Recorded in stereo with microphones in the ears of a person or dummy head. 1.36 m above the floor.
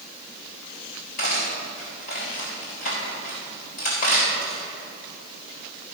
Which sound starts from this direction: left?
Cutlery clinking, at 1.2 s.